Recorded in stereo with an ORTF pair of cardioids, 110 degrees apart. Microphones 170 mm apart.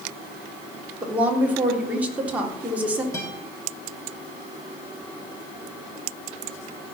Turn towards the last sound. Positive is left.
turn(degrees=20)